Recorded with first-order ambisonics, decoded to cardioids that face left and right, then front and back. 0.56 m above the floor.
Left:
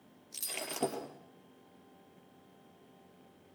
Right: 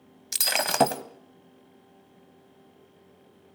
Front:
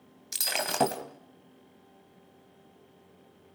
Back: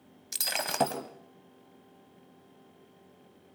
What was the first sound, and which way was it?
Breaking glass, 85° right.